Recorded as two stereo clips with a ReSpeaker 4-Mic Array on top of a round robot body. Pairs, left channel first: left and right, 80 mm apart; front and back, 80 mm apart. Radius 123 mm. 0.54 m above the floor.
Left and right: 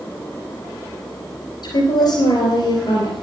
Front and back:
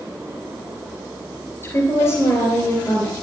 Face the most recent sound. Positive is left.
turn(degrees=60)